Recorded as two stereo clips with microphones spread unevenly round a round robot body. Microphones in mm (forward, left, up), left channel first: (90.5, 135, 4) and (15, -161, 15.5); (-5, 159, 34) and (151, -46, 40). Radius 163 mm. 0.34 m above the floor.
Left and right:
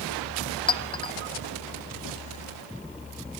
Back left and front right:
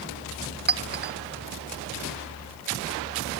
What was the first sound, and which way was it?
A clink, straight ahead.